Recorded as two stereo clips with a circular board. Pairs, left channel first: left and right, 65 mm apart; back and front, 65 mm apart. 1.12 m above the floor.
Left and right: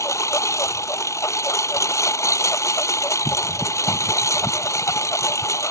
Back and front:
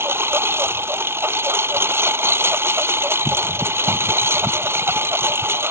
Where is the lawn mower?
55° left.